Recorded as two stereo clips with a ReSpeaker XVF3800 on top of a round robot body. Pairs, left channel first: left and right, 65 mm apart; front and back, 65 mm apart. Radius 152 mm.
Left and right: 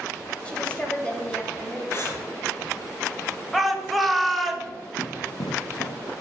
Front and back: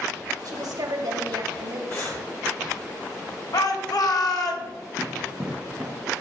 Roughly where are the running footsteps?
Behind left.